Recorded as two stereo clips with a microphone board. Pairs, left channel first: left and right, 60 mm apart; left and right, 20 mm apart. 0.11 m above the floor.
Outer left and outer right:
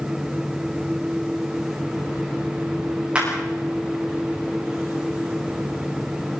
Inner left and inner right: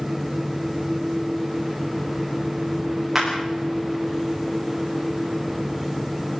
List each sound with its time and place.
3.1 s a clap: 15° right (ahead or behind), 9 m